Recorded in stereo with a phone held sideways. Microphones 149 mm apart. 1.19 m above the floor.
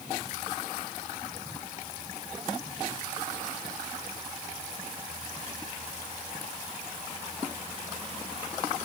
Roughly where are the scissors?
I don't hear scissors.